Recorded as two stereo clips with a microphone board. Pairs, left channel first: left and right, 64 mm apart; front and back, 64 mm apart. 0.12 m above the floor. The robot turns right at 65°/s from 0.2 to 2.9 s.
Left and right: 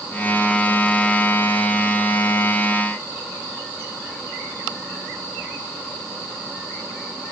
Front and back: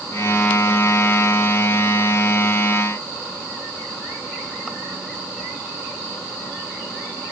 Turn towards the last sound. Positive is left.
No sound to turn to.